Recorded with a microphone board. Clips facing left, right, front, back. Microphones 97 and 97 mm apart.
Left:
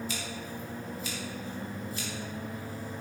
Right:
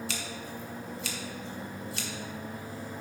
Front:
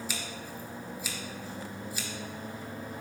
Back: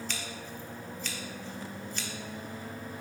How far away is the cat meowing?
No cat meowing in this recording.